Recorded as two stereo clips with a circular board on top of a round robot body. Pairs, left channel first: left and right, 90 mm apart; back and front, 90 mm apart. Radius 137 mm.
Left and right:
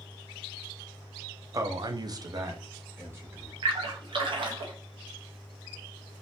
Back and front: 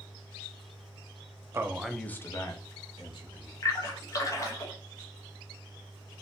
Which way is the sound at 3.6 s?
125° right.